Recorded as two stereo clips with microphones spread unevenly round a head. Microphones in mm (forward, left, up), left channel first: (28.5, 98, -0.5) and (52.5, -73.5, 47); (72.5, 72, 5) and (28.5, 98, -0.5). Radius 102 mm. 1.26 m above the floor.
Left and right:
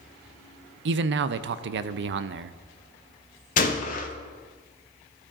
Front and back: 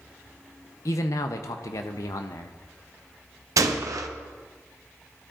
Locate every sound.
0.8 s a man speaking: 55° right, 0.5 m
3.6 s a gunshot: 155° left, 0.7 m